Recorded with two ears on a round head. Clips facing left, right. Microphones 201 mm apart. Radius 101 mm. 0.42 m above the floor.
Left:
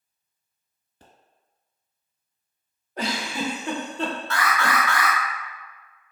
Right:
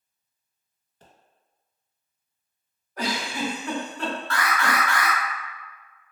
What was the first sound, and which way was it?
A pop, 65° left (ahead or behind).